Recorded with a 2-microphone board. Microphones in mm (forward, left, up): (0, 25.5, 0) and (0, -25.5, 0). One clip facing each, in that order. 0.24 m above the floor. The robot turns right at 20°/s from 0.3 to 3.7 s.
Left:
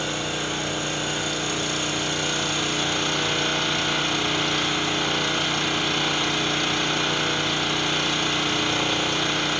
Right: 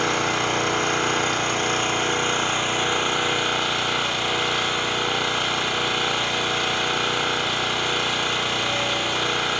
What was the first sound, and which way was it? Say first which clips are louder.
An engine running: right 6 dB; 70° right.